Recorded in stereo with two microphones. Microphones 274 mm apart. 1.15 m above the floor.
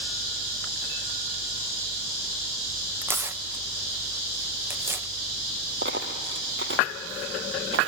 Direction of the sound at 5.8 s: 45° right (ahead or behind).